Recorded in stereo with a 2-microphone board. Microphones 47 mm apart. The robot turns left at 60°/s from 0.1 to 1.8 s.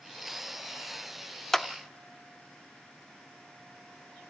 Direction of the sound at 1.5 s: 10° left (ahead or behind).